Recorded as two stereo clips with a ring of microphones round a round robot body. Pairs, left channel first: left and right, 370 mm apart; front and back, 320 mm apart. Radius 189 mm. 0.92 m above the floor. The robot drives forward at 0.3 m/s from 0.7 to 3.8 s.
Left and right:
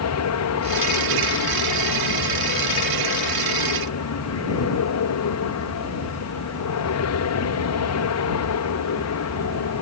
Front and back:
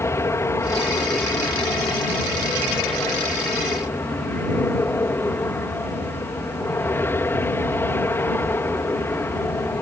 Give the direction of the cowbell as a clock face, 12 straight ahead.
No cowbell in this recording.